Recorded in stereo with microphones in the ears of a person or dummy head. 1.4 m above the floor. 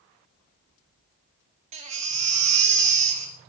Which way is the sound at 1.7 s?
35° right (ahead or behind).